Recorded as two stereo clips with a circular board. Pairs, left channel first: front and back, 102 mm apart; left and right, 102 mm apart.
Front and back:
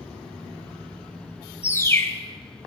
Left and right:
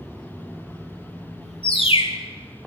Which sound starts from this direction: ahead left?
A bird, at 1.6 s.